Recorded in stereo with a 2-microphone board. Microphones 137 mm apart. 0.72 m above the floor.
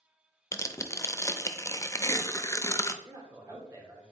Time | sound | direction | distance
0.5 | tearing paper | 20° left (ahead or behind) | 0.6 m
3.0 | a man speaking | 25° right (ahead or behind) | 2.5 m